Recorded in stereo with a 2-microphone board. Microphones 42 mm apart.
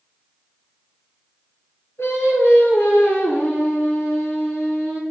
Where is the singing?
75° left (ahead or behind), 2 m.